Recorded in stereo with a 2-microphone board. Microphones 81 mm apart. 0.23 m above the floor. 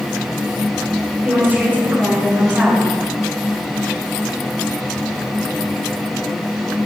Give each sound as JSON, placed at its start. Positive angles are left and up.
{"t": 1.2, "sound": "a woman speaking", "side_deg": -25, "distance_m": 2.5}